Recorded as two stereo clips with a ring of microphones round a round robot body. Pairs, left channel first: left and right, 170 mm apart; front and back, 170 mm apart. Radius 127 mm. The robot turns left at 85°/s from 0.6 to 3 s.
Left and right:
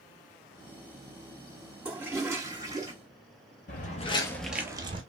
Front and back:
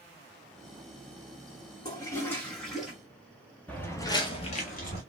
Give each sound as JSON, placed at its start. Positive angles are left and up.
{"t": 1.9, "sound": "a toilet flushing", "azimuth_deg": -15, "distance_m": 1.2}
{"t": 3.7, "sound": "footsteps", "azimuth_deg": 80, "distance_m": 0.9}